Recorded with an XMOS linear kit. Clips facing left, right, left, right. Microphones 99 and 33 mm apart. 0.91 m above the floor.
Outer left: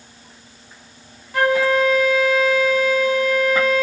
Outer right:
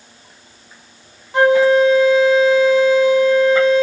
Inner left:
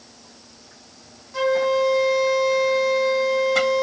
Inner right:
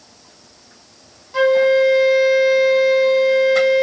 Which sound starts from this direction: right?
A flute, at 1.3 s.